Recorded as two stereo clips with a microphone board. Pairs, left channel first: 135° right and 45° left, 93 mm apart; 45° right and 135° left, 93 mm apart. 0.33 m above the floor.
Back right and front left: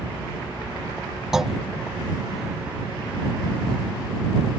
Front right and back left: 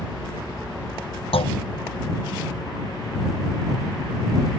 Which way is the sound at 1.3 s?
40° right.